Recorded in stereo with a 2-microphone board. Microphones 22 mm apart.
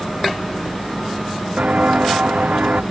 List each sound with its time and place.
1.6 s footsteps: 70° right (ahead or behind); by 2.8 s 75° right (ahead or behind)